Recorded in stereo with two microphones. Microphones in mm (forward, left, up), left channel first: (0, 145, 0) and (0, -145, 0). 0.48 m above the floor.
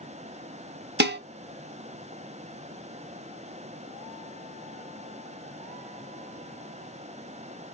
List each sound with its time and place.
1.0 s dishes clattering: 35° right (ahead or behind), 0.7 m